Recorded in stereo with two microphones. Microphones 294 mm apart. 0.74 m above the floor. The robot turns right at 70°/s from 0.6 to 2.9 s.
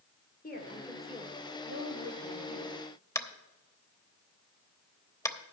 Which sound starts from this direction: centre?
Tapping, at 3.1 s.